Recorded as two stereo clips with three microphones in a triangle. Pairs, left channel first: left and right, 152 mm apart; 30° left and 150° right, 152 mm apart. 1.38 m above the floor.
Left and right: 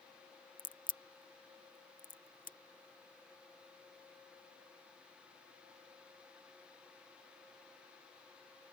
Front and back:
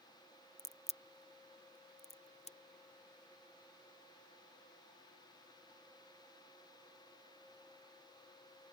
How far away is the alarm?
No alarm in this recording.